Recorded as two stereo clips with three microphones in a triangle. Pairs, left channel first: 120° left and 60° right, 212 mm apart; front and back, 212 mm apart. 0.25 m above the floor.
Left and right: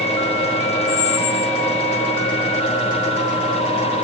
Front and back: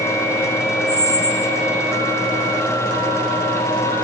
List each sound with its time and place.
0.9 s a squeak: 5° right, 4.5 m